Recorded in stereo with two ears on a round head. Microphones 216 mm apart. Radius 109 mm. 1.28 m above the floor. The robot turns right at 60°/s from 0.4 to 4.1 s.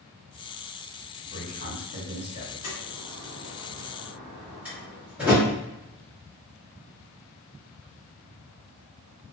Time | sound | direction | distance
1.2 | a man speaking | 25° left | 1.5 m
2.6 | a door slam | 75° left (ahead or behind) | 1.4 m